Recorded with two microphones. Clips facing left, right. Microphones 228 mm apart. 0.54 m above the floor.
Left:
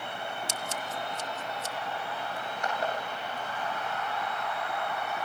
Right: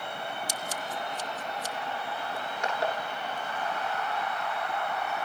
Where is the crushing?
85° right, 8 m.